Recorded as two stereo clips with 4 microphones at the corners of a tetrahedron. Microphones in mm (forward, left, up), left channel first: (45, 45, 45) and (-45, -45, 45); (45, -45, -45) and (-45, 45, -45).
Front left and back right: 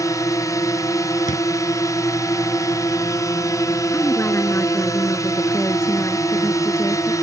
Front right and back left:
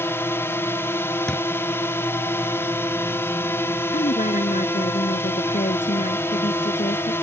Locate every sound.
0.0 s a drone: 10° left
1.3 s a thud: 40° left
3.9 s a woman speaking: 25° right